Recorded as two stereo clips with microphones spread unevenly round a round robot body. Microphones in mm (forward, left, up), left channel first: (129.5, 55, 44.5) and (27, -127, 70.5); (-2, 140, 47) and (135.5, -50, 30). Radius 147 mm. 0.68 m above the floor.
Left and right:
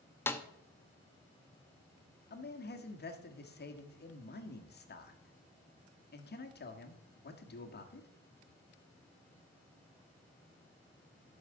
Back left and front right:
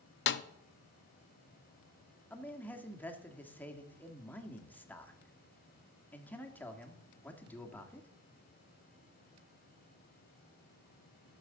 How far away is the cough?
No cough in this recording.